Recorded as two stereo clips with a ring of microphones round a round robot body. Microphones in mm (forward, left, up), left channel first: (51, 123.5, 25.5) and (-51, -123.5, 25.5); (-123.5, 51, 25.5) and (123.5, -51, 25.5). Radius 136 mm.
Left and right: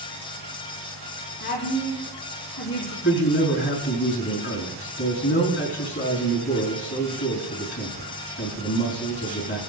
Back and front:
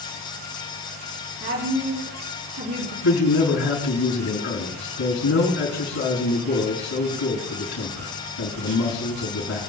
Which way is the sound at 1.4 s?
15° left.